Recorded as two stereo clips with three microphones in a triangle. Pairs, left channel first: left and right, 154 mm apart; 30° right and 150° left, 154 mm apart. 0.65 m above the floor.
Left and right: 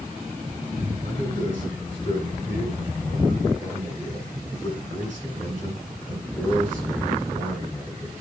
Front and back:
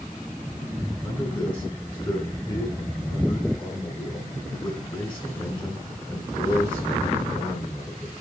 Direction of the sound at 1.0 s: 35° left.